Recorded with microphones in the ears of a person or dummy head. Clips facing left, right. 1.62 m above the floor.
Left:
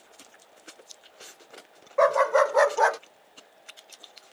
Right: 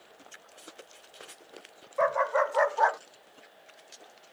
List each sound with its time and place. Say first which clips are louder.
2.0 s a dog barking: left 6 dB; 60° left (ahead or behind); by 3.0 s 45° left (ahead or behind)